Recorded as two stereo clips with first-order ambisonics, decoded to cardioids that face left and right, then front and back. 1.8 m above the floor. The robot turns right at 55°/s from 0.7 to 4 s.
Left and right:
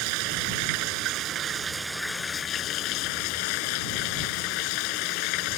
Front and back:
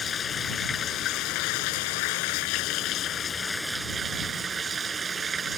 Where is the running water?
70° right; by 5.6 s 110° left.